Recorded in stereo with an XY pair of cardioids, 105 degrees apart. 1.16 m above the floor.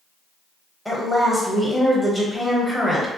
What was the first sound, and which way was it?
A woman speaking, 5° right.